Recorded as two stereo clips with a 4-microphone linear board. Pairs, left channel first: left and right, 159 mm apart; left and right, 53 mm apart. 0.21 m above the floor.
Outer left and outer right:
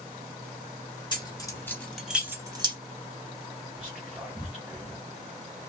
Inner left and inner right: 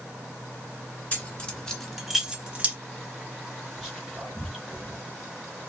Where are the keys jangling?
30° left (ahead or behind), 1.1 m; by 2.8 s 30° right (ahead or behind), 0.8 m.